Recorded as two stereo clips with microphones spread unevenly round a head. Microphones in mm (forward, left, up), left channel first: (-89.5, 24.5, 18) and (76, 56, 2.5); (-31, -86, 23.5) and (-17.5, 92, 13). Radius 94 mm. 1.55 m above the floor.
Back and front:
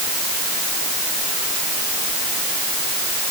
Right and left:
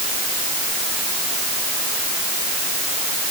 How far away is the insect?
No insect in this recording.